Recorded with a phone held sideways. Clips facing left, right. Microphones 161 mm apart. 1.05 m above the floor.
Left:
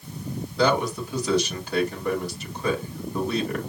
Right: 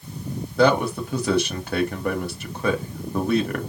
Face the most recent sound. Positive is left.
turn(degrees=-55)  # may be behind; listen again after turning